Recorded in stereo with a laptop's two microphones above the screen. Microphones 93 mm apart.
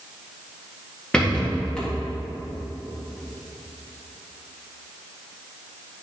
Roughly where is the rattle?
Centre.